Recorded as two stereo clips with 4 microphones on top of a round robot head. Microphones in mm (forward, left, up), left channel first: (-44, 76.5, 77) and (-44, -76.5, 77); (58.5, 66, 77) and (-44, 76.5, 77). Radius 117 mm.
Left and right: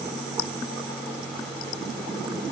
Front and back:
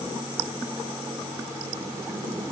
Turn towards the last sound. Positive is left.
No sound to turn to.